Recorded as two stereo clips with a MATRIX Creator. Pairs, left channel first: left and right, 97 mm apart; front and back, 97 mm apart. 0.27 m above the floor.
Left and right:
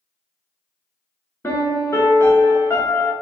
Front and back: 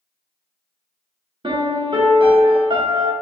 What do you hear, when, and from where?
1.4 s a piano: 155° left, 0.9 m